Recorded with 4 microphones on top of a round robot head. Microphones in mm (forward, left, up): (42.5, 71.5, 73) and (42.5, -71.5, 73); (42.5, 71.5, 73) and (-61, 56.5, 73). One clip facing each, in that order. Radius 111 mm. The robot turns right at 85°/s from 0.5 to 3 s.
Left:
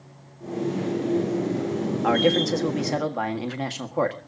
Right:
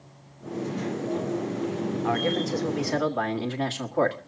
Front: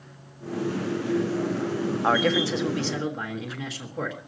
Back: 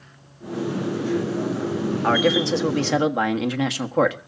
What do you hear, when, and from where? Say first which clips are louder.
2.0 s a man speaking: left 7 dB, back 3 dB; 85° left, 1.5 m; by 4.2 s 165° left, 1.5 m